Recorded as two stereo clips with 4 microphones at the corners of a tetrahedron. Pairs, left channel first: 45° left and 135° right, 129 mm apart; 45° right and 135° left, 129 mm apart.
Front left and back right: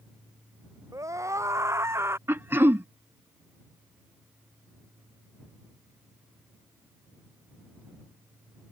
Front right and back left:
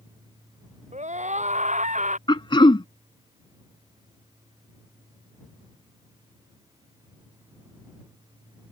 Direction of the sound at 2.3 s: 70° right.